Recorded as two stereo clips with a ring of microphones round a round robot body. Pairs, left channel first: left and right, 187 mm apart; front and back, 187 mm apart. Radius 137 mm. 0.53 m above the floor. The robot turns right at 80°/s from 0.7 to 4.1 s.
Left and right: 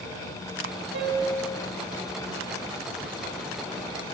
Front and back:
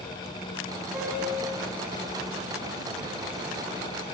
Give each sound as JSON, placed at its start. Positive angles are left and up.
{"t": 0.9, "sound": "a piano", "azimuth_deg": -95, "distance_m": 6.0}